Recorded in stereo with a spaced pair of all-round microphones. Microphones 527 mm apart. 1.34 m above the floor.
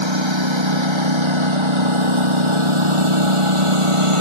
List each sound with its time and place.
0.0 s a lawn mower: 60° right (ahead or behind); by 4.2 s 75° right (ahead or behind)